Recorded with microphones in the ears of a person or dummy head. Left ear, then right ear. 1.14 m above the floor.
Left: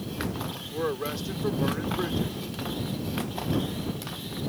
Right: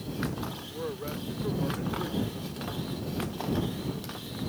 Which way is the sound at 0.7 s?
85° left.